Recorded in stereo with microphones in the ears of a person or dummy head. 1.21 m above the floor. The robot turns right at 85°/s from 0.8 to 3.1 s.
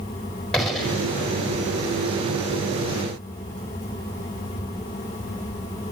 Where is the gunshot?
Centre (ahead or behind), 4.5 m; by 1.1 s 25° left (ahead or behind), 4.5 m.